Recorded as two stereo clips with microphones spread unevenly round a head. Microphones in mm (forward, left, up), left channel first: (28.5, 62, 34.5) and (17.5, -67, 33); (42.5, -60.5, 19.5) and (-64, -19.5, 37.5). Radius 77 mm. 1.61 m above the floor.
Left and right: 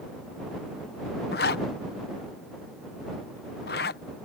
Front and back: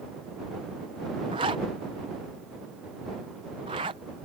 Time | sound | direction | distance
1.3 | a zipper | 100° left | ?